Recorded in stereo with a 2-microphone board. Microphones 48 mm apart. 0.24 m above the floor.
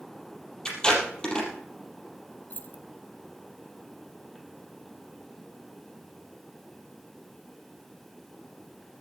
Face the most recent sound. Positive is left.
turn(degrees=40)  # may be behind; listen again after turning